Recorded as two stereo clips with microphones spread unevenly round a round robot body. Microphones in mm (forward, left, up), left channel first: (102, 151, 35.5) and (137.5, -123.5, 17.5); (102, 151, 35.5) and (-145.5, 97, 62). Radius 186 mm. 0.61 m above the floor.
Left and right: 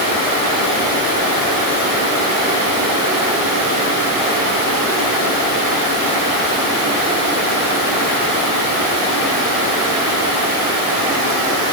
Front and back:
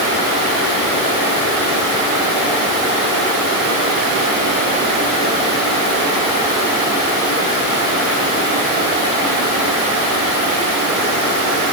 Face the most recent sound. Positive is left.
No sound to turn to.